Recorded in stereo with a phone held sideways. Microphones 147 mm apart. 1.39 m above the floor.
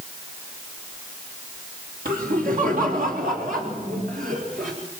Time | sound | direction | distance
2.0 | laughter | 75° right (ahead or behind) | 4.5 m